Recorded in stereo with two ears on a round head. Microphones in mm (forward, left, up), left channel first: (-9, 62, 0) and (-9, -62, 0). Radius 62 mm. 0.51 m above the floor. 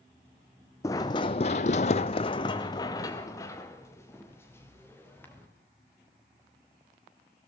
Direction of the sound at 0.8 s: 20° left (ahead or behind).